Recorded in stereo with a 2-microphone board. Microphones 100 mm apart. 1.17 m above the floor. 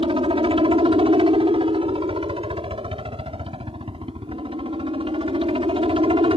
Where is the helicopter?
65° right (ahead or behind).